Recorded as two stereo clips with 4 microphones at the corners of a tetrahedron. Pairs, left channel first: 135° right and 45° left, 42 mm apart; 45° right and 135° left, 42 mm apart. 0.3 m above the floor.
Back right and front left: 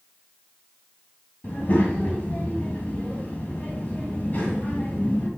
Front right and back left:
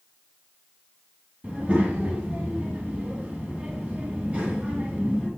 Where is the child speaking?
175° right, 2.0 m.